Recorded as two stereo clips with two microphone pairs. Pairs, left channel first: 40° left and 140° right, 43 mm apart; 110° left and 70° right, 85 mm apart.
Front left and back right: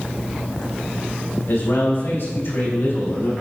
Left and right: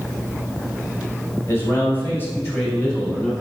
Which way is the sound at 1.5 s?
55° left.